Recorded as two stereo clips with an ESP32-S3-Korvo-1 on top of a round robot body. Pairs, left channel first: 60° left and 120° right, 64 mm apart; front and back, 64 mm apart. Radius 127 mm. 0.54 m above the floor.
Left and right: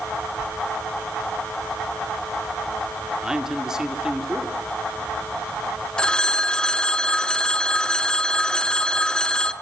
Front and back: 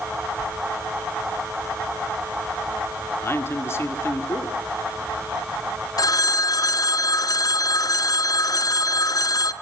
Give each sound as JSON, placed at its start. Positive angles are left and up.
{"t": 0.4, "sound": "a sliding door", "azimuth_deg": 65, "distance_m": 3.5}
{"t": 3.2, "sound": "a man speaking", "azimuth_deg": -40, "distance_m": 2.0}
{"t": 6.0, "sound": "a phone ringing", "azimuth_deg": -15, "distance_m": 0.9}